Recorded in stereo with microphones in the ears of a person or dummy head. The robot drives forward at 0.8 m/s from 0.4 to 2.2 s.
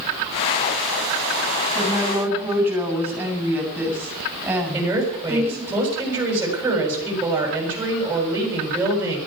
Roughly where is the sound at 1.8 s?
Centre.